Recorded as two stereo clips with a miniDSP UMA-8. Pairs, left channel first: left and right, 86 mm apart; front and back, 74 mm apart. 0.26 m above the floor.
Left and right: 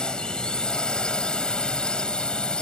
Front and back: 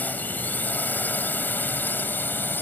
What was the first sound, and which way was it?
A drone, 25° left.